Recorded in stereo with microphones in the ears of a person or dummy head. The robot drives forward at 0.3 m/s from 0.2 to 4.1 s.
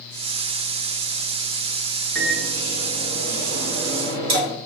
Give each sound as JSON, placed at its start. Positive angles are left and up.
{"t": 2.1, "sound": "a microwave", "side_deg": -80, "distance_m": 3.0}